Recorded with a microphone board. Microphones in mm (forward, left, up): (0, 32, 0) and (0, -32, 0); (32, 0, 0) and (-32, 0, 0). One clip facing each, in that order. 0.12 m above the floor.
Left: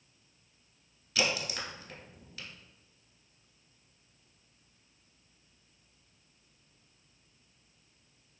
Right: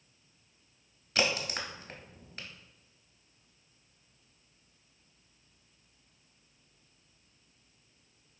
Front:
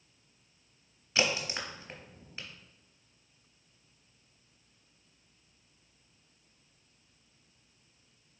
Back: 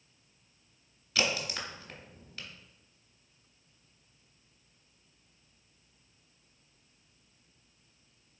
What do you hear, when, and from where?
1.1 s a crack: 60° right, 0.7 m